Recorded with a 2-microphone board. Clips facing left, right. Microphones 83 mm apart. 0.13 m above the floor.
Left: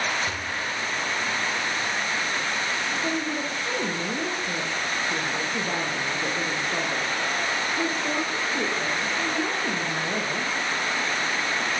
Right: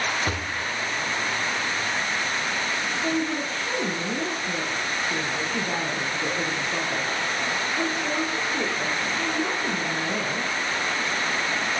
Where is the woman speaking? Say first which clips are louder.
Right 2 dB; 5° left (ahead or behind), 5 m.